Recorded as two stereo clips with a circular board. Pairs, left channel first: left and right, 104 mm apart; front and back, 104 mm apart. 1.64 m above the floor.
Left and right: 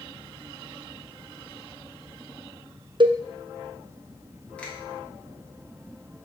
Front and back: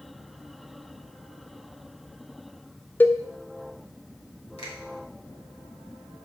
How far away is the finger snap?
About 2.0 m.